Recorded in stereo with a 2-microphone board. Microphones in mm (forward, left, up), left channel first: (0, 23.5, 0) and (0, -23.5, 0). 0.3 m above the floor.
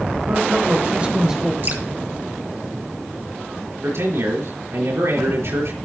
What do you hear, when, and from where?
0.3 s a man speaking: 40° right (ahead or behind), 1.3 m; by 1.5 s 5° right (ahead or behind), 1.1 m
1.6 s dripping: 50° right (ahead or behind), 2 m
3.8 s a man speaking: 70° right (ahead or behind), 5.5 m